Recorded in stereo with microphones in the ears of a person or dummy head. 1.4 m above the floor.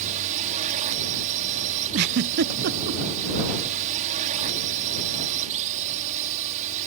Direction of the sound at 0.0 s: 45° right (ahead or behind).